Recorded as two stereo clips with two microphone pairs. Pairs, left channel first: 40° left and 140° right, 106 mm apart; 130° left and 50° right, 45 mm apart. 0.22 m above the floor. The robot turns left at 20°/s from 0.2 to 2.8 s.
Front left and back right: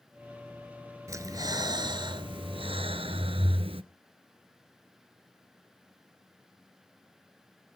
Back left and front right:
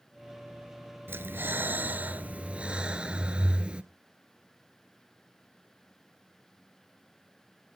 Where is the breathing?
80° right, 0.9 m; by 3.8 s 115° right, 0.9 m.